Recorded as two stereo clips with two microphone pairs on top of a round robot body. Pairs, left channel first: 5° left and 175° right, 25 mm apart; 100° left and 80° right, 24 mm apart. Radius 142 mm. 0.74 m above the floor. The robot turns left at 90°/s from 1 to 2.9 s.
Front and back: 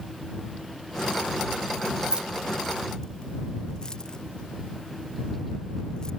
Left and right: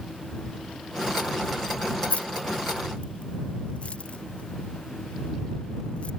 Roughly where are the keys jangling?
Behind left.